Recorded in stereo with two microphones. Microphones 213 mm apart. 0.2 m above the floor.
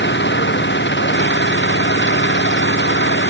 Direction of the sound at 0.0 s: 60° left (ahead or behind).